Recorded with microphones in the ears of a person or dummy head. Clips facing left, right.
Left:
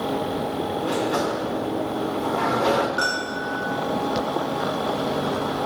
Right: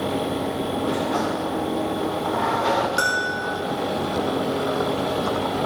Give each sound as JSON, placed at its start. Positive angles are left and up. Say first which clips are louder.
{"t": 0.8, "sound": "a sliding door", "louder": "left 1 dB", "side_deg": 40, "distance_m": 1.5}
{"t": 3.0, "sound": "a bell", "louder": "right 1 dB", "side_deg": -25, "distance_m": 4.5}